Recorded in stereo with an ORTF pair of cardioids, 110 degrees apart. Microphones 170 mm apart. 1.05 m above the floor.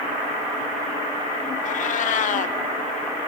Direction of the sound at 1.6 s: 50° left.